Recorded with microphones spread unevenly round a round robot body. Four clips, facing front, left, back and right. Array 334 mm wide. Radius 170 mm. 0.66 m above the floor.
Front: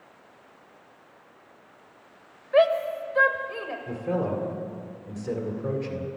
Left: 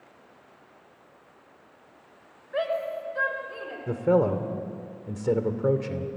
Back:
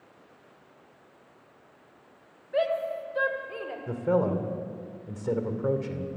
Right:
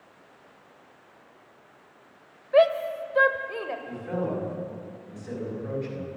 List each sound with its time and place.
2.5 s a shout: 45° right, 3 m; by 3.8 s 65° right, 3 m
3.9 s a man speaking: 95° left, 2.5 m